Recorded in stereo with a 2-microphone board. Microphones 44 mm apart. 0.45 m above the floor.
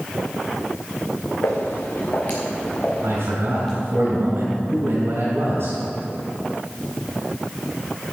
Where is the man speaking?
75° right (ahead or behind), 3.5 m.